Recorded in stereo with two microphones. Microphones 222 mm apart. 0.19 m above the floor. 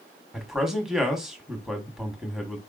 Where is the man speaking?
Centre (ahead or behind), 1.0 m.